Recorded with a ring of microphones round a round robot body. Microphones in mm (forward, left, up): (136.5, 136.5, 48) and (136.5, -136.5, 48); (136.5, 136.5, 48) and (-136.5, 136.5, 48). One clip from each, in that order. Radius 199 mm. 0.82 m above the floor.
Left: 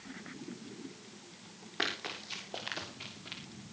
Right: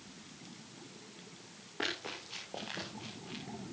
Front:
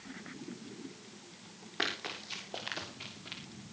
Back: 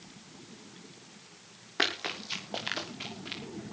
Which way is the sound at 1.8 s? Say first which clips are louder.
Left 2 dB, back 5 dB; 145° left.